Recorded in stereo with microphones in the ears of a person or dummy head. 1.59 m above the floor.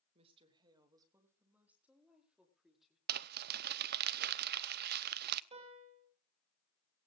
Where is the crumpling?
50° right (ahead or behind), 0.6 m.